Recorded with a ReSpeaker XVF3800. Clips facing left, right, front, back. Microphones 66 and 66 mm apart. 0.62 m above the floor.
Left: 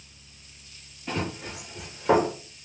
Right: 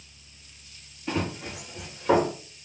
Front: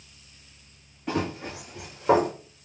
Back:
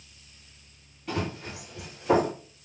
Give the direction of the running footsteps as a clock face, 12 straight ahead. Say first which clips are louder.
Right 2 dB, front 3 dB; 12 o'clock.